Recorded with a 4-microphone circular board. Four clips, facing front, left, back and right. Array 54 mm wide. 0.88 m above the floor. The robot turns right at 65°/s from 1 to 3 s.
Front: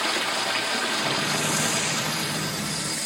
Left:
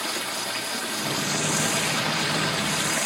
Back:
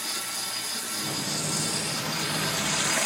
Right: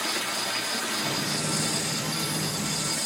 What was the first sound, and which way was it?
Running water, 5° left.